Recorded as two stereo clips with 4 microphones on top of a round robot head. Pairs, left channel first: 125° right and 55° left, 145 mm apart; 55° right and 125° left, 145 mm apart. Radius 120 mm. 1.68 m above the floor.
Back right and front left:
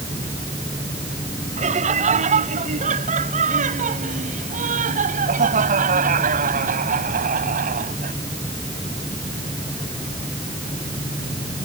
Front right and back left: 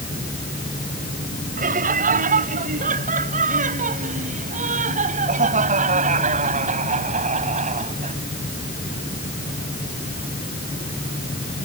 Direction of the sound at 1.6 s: 95° left.